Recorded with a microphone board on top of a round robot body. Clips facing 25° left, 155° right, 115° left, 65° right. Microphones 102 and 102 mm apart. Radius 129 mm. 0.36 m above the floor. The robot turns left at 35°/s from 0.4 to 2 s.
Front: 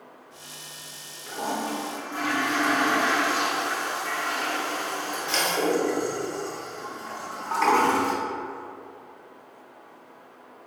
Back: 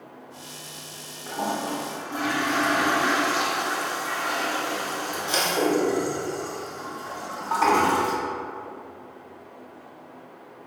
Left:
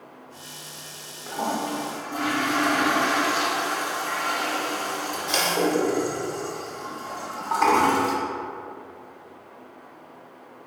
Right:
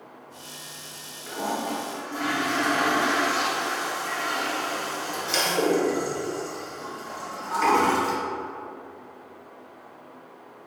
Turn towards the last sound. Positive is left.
turn(degrees=130)